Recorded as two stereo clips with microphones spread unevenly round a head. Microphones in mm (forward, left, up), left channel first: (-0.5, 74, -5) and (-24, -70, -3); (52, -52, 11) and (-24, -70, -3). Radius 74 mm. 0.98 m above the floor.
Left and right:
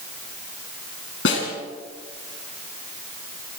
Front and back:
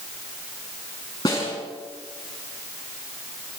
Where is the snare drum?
75° left, 5.5 m.